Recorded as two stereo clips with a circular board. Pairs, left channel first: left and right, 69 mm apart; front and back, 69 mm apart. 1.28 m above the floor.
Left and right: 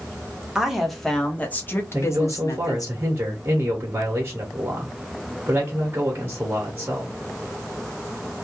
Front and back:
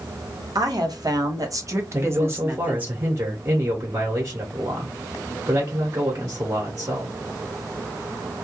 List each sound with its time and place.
0.6 s a woman speaking: 170° right, 1.0 m; by 2.9 s 110° left, 1.1 m
1.9 s a man speaking: 140° right, 1.0 m